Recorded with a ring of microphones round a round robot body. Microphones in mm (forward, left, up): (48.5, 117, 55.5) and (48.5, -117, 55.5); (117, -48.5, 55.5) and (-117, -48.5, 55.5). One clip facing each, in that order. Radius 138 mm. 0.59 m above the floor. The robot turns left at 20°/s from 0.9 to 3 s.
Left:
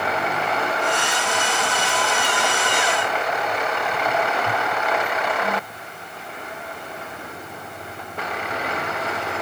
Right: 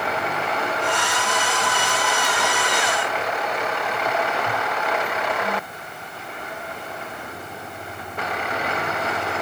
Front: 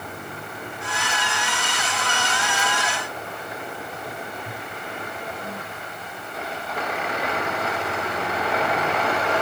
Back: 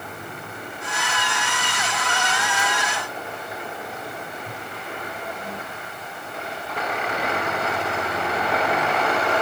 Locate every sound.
Only background noise.